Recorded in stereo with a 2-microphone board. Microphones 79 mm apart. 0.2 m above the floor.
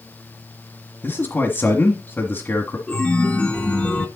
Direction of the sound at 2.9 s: 15° left (ahead or behind).